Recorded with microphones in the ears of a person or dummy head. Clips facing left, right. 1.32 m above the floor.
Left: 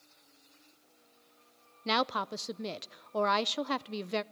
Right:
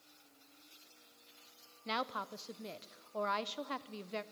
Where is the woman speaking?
70° left (ahead or behind), 0.6 m.